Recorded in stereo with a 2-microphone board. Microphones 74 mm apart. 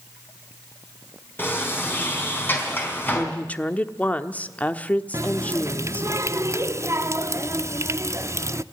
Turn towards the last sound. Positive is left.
turn(degrees=-40)  # may be behind; listen again after turning